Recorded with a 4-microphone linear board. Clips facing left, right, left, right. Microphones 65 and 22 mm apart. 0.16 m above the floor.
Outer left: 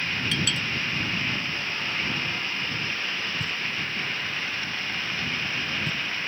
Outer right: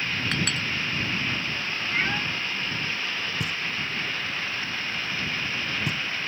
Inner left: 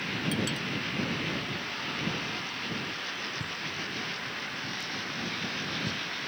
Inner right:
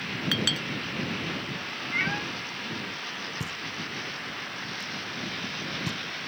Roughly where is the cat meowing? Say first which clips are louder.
Outer right 6 dB, inner right 9 dB; right.